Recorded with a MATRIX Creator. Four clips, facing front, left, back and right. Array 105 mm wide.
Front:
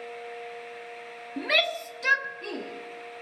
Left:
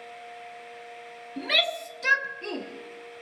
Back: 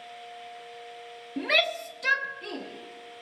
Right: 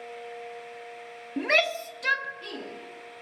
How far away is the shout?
About 0.8 m.